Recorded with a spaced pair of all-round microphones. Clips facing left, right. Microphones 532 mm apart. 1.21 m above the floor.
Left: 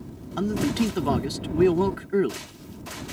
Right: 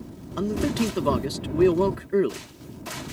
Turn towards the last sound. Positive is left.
turn(degrees=5)  # may be behind; listen again after turning